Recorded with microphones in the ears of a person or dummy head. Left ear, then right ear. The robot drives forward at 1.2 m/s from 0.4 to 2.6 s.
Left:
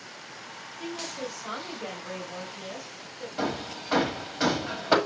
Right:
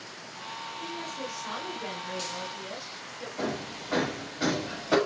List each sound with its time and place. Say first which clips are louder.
0.8 s a woman speaking: left 4 dB; 35° left (ahead or behind), 2.5 m; by 3.3 s 15° left (ahead or behind), 4.5 m
3.4 s hammering: left 3 dB; 50° left (ahead or behind), 1.9 m